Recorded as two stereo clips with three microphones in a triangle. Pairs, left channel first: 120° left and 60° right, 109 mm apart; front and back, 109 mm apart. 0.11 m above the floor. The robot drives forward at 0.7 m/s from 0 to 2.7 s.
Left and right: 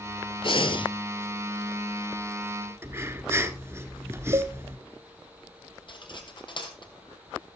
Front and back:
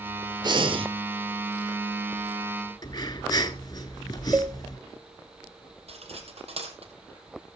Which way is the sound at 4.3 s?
100° right.